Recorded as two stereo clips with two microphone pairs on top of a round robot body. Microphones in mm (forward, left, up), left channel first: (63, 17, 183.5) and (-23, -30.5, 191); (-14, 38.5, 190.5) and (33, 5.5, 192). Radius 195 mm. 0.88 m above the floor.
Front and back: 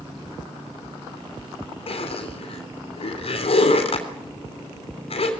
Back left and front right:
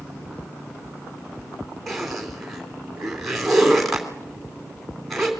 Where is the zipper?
55° left, 3 m.